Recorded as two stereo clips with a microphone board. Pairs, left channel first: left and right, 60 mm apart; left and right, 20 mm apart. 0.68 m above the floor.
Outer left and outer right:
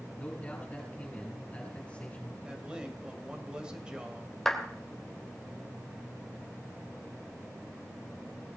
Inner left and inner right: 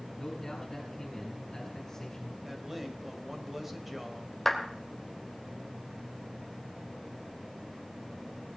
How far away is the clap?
About 2.5 m.